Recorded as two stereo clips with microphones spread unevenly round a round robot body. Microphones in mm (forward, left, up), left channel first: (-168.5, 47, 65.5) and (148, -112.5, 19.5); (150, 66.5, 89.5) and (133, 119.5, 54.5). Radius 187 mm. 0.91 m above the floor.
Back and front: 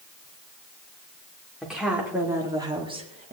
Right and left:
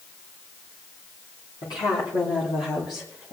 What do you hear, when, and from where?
1.6 s a woman speaking: 115° right, 3.5 m; by 3.3 s 90° right, 2 m